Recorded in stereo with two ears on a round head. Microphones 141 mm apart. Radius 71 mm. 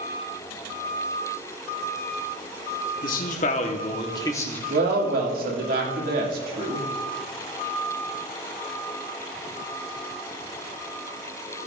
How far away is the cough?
No cough in this recording.